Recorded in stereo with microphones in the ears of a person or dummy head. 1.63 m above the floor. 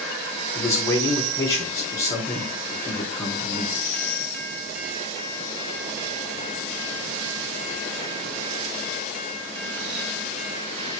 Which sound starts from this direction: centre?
A man speaking, at 0.6 s.